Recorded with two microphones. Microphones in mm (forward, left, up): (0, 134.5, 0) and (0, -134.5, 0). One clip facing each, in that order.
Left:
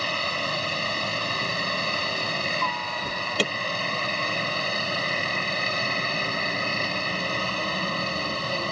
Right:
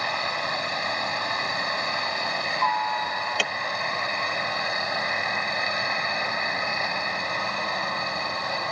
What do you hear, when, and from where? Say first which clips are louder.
0.0 s a helicopter: left 1 dB; 35° left (ahead or behind)
3.0 s an alarm: left 4 dB; 40° left (ahead or behind)